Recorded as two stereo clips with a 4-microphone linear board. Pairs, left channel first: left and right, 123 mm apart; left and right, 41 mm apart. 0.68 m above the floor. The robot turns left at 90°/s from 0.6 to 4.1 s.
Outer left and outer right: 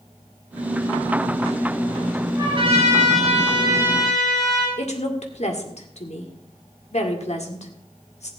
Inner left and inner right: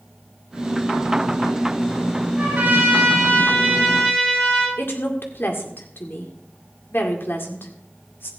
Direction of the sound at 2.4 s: 30° right.